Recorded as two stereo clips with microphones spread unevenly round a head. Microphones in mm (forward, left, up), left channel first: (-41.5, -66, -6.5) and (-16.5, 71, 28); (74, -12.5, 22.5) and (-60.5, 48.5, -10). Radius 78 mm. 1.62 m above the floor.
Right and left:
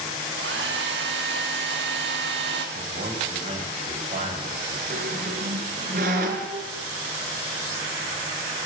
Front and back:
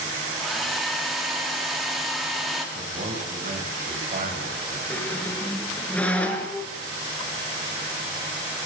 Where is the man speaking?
110° left, 8.5 m.